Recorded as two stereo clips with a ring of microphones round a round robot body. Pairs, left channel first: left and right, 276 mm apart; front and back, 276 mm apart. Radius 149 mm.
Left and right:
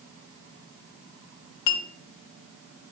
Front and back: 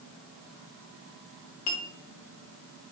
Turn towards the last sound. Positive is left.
turn(degrees=65)